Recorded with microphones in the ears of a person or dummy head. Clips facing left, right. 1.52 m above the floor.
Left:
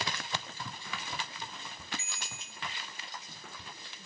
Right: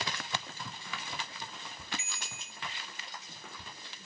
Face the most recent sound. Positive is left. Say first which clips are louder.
# even
turn(degrees=-20)  # may be behind; listen again after turning